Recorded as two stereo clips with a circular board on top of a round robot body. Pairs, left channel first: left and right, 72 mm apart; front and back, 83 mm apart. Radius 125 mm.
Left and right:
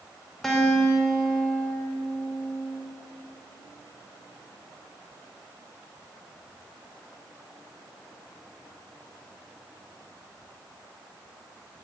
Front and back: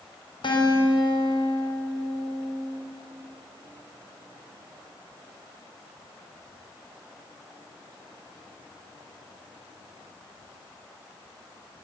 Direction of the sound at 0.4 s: Straight ahead.